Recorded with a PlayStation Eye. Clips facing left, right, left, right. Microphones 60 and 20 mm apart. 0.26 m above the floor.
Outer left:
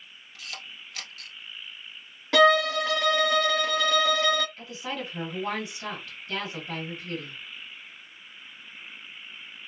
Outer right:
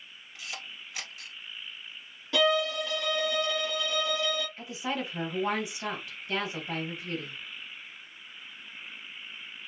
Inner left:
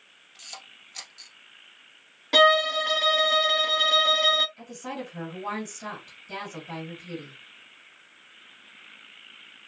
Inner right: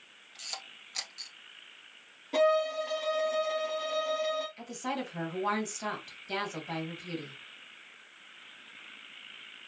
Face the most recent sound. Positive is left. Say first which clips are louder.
# outer right 1 dB, inner right 1 dB
turn(degrees=-15)  # may be behind; listen again after turning